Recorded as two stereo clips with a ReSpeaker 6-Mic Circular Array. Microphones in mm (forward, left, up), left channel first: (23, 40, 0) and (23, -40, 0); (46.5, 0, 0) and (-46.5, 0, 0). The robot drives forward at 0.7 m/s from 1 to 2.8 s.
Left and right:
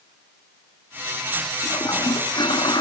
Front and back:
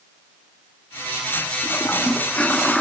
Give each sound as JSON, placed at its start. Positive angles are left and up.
{"t": 1.6, "sound": "a toilet flushing", "azimuth_deg": 60, "distance_m": 2.0}